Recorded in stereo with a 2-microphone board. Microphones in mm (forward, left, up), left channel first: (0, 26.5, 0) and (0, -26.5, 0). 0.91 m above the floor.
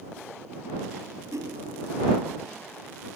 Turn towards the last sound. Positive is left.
turn(degrees=-75)  # may be behind; listen again after turning